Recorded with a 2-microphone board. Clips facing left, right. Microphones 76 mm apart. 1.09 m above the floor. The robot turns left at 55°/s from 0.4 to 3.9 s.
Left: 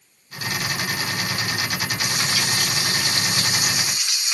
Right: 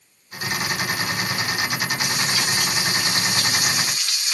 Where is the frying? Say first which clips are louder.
Right 1 dB; 110° left, 3 m; by 4.3 s 10° left, 3 m.